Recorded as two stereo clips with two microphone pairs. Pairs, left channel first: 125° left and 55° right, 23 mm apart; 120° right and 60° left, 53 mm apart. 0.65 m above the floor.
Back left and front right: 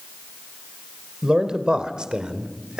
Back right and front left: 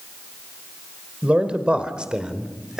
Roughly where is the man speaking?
Ahead.